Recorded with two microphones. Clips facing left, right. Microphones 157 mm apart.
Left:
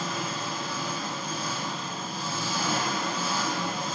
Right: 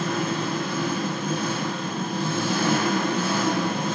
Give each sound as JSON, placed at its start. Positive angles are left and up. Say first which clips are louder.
{"t": 0.0, "sound": "an engine running", "louder": "right 7 dB", "side_deg": -70, "distance_m": 1.6}